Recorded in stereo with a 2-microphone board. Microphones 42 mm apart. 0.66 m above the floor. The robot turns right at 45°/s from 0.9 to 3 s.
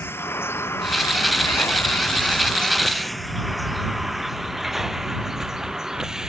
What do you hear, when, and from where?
0.0 s a vehicle: 60° left (ahead or behind); by 6.3 s 10° right (ahead or behind)